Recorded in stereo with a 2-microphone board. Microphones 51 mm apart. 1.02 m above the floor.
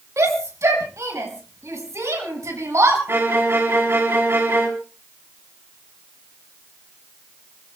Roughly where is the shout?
Right.